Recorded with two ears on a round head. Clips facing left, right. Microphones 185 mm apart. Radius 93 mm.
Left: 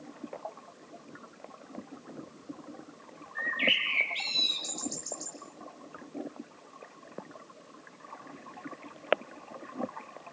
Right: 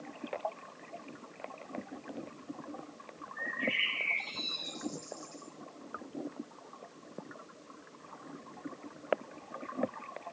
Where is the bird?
80° left, 8.5 m.